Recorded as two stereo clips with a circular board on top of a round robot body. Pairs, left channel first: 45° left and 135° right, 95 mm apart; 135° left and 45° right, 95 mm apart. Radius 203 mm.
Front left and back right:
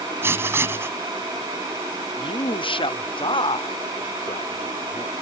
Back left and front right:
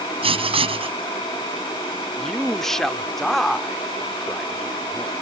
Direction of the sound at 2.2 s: 50° left.